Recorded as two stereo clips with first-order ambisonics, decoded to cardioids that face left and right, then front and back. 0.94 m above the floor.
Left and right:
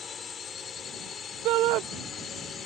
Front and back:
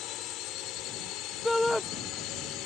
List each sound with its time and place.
0.0 s a drone: 30° left
1.4 s a shout: 85° right